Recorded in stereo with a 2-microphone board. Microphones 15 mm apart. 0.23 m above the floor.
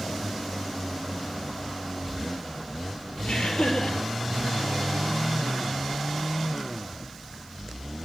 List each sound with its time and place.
3.2 s laughter: 70° left (ahead or behind), 4.5 m